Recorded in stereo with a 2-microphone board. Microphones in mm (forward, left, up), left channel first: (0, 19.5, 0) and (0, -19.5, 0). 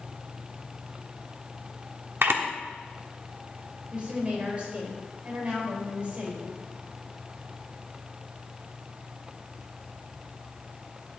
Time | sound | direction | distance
2.2 | a camera shutter | 75° right (ahead or behind) | 1.1 m
3.9 | a woman speaking | 35° right (ahead or behind) | 3.5 m